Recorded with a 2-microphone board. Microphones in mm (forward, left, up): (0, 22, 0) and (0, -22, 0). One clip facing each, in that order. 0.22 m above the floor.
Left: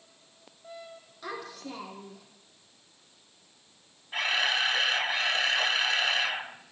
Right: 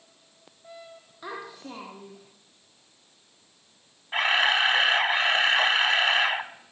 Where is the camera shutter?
35° right (ahead or behind), 1.5 m.